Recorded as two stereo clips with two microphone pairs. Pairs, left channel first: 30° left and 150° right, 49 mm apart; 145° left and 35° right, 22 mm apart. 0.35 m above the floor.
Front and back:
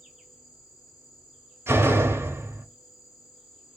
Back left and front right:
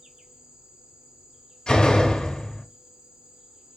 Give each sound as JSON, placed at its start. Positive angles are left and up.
{"t": 0.0, "sound": "an insect", "azimuth_deg": -65, "distance_m": 2.5}
{"t": 1.7, "sound": "a door slam", "azimuth_deg": -170, "distance_m": 0.9}